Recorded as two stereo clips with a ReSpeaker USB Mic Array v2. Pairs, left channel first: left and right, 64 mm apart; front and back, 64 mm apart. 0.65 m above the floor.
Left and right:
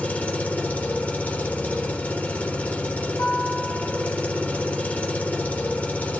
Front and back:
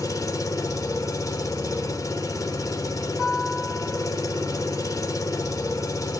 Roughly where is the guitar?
Left.